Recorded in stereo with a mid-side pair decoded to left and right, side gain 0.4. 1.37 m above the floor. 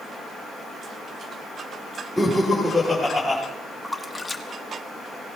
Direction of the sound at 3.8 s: 10° left.